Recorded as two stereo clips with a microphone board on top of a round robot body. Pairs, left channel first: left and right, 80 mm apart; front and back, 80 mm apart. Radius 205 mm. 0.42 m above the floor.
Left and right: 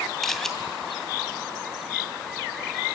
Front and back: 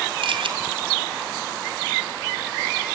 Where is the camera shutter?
175° left, 2.5 m.